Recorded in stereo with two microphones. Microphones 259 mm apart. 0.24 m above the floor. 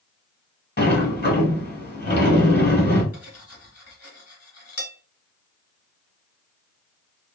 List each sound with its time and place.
0.8 s a sliding door: 40° left (ahead or behind), 1.2 m
3.1 s cutlery clinking: 70° left (ahead or behind), 1.4 m